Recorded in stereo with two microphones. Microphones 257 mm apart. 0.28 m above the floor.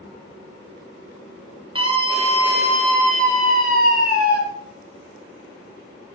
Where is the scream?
20° right (ahead or behind), 5 m; by 4.4 s 40° right (ahead or behind), 5.5 m.